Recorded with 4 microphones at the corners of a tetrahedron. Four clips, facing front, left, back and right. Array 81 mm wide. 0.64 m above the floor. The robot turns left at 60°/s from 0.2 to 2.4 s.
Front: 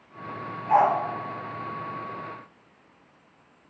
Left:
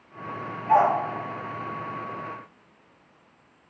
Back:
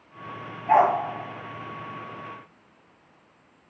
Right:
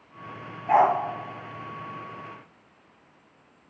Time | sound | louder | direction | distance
0.7 | a dog barking | even, back 1 dB | 145° right | 2.5 m